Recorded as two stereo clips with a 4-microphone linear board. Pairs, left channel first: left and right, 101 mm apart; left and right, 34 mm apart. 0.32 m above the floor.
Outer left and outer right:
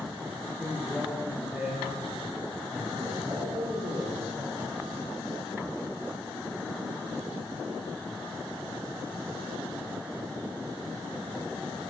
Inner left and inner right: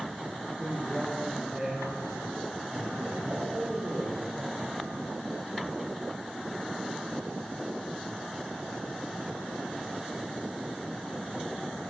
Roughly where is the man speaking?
Centre.